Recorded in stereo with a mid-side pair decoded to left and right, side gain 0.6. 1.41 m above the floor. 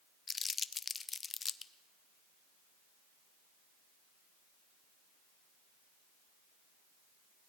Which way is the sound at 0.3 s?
25° left.